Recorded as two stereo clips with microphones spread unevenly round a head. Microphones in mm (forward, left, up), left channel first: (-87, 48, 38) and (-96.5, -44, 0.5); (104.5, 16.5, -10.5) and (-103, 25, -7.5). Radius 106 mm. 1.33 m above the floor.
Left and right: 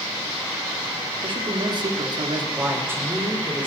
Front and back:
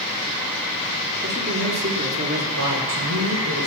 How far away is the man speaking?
About 3 m.